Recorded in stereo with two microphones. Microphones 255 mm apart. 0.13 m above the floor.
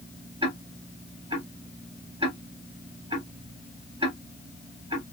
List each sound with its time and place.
0.4 s ticking: 20° right (ahead or behind), 1.5 m